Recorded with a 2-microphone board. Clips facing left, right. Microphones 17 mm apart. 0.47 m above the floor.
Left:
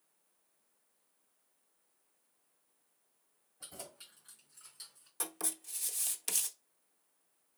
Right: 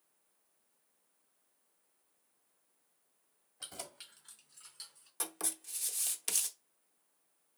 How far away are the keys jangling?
About 1.7 m.